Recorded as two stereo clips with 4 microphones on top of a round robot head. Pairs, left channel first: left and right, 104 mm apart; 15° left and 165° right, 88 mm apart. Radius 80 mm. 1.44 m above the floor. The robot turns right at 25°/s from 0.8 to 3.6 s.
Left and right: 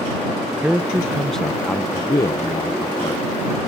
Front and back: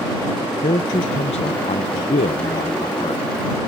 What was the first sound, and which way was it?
A man speaking, 10° right.